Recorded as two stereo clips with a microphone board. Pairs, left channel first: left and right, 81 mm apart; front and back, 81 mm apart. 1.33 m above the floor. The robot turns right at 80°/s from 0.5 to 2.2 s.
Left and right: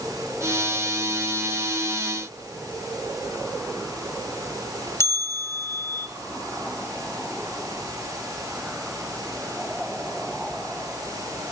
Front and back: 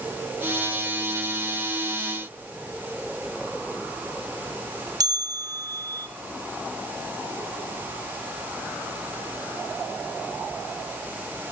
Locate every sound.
5.0 s a bell: 145° left, 0.9 m